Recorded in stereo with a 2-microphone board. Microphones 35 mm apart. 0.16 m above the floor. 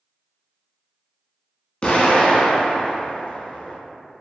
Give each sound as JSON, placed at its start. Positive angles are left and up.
{"t": 1.8, "sound": "an explosion", "side_deg": 35, "distance_m": 0.6}